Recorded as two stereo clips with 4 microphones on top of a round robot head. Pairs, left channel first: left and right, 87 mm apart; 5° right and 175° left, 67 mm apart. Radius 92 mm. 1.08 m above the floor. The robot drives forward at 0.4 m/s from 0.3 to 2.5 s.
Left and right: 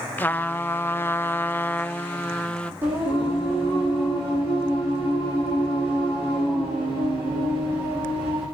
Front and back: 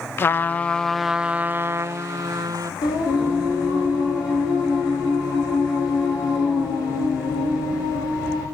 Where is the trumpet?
30° left, 0.5 m; by 2.7 s 165° left, 0.8 m.